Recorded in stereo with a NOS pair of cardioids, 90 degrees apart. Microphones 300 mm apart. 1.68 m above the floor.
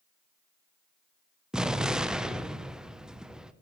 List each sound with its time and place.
1.5 s an explosion: straight ahead, 0.7 m